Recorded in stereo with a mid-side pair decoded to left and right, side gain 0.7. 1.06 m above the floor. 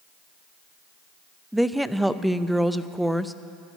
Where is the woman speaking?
Straight ahead, 0.6 m.